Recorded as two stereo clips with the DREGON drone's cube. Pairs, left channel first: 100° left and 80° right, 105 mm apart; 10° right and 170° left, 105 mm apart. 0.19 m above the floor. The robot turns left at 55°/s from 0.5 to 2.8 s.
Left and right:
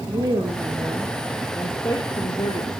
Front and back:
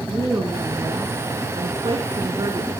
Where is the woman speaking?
125° right, 2.5 m; by 2.7 s 115° left, 2.5 m.